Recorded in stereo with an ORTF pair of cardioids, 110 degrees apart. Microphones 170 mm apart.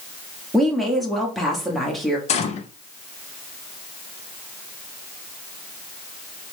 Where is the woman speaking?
Straight ahead, 0.8 m.